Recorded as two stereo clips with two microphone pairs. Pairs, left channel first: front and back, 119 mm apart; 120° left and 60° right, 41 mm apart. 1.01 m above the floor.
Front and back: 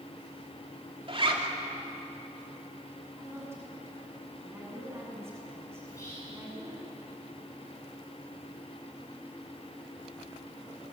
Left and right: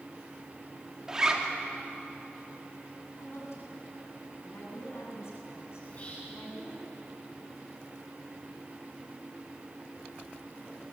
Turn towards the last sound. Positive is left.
turn(degrees=65)